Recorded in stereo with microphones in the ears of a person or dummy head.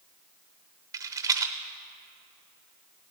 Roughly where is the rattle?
Centre.